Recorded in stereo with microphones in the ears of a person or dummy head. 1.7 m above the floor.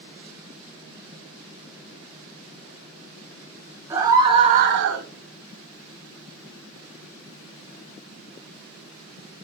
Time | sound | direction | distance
3.9 | a scream | 15° right (ahead or behind) | 1.2 m